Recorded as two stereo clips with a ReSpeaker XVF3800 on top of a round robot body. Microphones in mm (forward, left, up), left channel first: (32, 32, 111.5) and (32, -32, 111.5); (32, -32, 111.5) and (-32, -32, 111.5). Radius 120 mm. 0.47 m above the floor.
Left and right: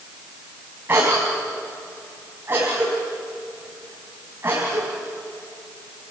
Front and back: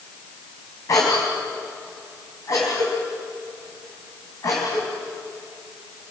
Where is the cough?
35° right, 4.5 m.